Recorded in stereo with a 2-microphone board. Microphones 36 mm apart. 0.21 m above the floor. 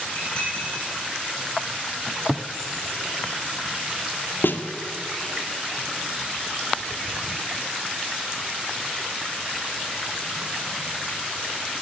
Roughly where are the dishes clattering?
Left.